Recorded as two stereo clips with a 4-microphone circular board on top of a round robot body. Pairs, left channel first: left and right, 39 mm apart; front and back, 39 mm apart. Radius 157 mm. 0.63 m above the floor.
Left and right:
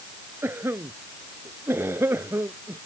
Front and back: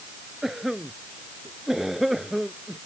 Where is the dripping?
No dripping in this recording.